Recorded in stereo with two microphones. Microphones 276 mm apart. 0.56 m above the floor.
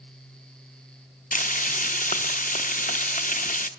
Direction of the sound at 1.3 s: 30° left (ahead or behind).